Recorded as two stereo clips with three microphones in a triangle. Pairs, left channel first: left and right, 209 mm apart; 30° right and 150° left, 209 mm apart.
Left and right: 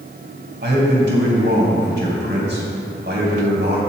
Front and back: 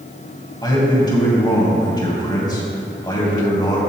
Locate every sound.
0.6 s a man speaking: 95° right, 2.5 m